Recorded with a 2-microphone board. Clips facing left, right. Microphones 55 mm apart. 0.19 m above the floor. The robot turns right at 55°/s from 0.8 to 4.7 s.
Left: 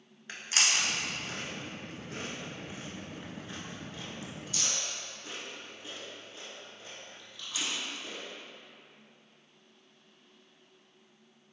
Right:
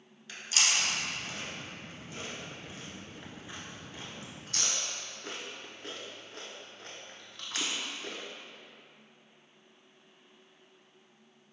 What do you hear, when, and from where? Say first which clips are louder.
0.3 s chewing: left 1 dB; 40° left (ahead or behind), 0.8 m; by 8.2 s 70° right (ahead or behind), 0.8 m